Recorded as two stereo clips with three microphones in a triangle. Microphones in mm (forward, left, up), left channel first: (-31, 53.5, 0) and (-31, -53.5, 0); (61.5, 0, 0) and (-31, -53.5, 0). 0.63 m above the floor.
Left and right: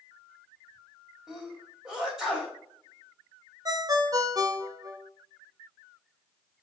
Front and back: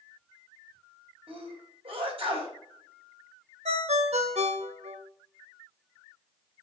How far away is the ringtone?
About 1.0 m.